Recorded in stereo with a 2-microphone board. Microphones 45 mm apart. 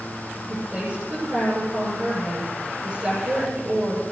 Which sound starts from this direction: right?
A woman speaking, at 0.5 s.